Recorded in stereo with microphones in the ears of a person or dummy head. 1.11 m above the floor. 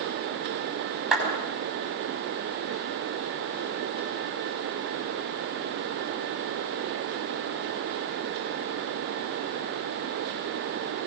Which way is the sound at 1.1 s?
5° right (ahead or behind).